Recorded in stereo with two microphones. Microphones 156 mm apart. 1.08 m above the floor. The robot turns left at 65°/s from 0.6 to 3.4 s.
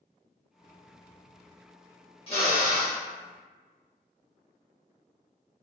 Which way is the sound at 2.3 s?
145° left.